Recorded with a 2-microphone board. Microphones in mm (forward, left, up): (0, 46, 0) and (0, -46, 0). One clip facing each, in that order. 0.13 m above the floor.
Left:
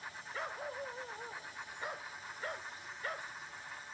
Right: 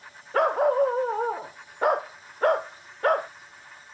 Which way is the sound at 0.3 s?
70° right (ahead or behind).